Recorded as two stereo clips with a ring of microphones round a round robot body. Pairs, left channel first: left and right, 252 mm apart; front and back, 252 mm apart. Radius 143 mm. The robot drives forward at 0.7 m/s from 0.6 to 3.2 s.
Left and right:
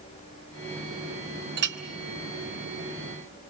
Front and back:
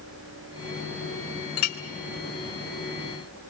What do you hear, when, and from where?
1.6 s a clink: 40° right, 2.0 m; by 1.8 s 45° right, 1.8 m